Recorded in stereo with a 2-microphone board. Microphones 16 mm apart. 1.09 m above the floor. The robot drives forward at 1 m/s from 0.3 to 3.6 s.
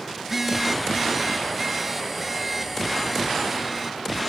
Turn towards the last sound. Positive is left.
turn(degrees=-5)  # may be behind; listen again after turning